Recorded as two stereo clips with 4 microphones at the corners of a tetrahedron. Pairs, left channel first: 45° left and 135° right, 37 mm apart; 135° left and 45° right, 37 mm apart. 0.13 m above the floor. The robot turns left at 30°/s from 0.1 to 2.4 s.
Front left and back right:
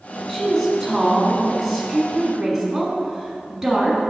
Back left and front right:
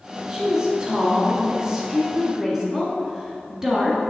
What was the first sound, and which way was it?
A woman speaking, 10° right.